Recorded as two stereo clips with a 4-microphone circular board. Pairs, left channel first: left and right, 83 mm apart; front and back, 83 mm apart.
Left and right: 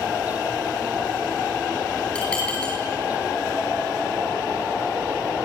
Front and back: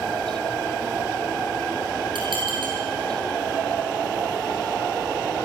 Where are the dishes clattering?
170° left, 8.5 m.